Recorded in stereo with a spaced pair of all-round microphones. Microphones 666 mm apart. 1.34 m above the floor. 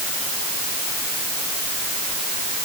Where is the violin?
No violin in this recording.